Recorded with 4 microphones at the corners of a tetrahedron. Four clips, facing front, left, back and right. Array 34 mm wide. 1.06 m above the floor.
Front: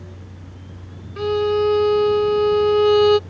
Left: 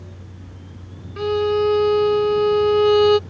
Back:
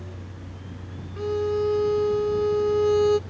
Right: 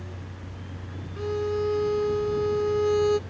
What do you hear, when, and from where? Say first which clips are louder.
1.2 s a violin: left 8 dB, front 6 dB; 45° left